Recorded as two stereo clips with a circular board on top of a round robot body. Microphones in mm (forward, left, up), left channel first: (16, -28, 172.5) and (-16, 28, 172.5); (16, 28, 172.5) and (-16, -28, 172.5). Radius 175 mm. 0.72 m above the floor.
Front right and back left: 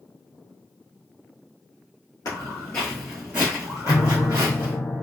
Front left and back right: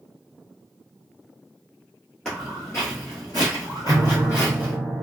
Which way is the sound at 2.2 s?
20° right.